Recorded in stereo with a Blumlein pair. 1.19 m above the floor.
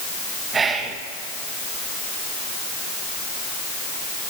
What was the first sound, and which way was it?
Whispering, 20° right.